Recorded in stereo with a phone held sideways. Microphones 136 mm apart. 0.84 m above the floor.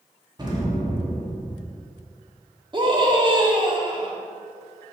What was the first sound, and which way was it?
An explosion, 30° right (ahead or behind).